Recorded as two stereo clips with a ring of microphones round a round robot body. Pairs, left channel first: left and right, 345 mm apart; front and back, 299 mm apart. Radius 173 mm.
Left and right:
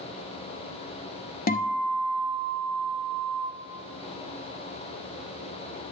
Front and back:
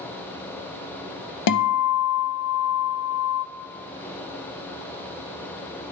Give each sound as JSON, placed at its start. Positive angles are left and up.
{"t": 1.5, "sound": "a guitar", "azimuth_deg": 25, "distance_m": 0.7}